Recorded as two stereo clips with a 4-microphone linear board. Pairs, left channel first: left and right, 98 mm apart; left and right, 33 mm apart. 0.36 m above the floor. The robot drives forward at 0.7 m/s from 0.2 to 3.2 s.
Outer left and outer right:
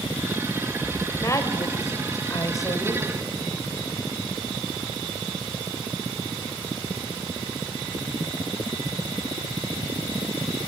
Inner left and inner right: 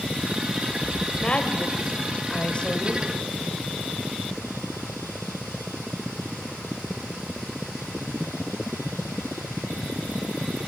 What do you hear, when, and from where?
1.2 s a woman speaking: 30° left (ahead or behind), 1.8 m